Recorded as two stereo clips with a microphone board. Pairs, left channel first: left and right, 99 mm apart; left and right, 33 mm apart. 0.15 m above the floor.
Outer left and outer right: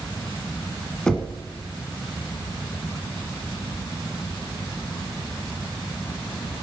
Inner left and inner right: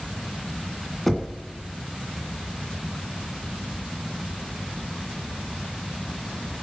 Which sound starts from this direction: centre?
Knocking, at 1.1 s.